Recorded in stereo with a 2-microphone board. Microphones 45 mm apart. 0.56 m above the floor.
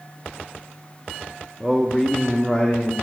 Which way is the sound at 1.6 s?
5° right (ahead or behind).